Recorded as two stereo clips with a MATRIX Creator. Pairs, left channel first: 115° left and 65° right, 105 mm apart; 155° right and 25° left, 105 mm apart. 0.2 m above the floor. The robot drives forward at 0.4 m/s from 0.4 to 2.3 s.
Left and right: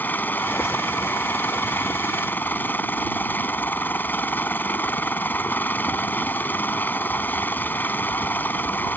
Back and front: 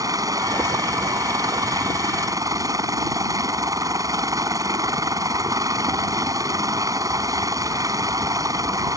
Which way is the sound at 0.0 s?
50° left.